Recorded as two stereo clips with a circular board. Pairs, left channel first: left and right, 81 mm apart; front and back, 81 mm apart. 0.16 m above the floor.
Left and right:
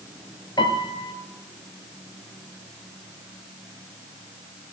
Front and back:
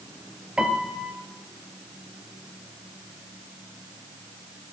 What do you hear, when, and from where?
0.6 s a piano: 100° left, 0.5 m